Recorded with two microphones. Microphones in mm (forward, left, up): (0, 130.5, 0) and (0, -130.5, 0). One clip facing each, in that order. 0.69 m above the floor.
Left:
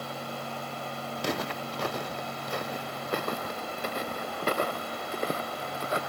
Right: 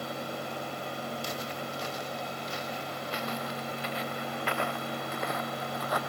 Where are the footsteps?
70° left (ahead or behind); by 6.0 s 25° left (ahead or behind).